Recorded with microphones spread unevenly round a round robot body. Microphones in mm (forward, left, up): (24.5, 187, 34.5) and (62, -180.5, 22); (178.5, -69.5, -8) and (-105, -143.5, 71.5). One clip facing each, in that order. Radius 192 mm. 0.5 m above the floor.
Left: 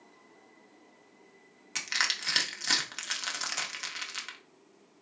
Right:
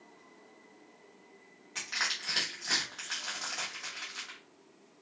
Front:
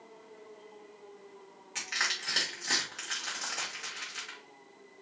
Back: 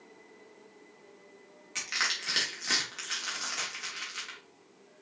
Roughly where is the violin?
No violin in this recording.